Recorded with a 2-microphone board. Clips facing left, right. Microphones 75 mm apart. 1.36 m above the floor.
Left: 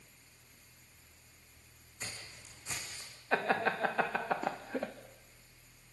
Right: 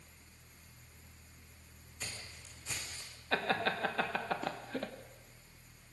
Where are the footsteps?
25° left (ahead or behind), 6.5 m; by 3.1 s 20° left (ahead or behind), 5.5 m.